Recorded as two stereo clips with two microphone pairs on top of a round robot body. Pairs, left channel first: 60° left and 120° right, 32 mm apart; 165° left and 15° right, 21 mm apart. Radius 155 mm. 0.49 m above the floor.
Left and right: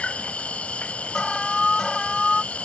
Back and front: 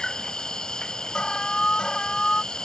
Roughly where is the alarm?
Behind left.